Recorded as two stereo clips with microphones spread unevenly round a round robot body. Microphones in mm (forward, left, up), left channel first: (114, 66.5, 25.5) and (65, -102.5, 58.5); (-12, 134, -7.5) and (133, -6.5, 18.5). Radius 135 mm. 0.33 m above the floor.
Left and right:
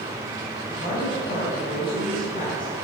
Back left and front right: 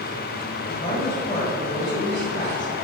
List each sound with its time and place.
0.7 s a woman speaking: 95° left, 1.8 m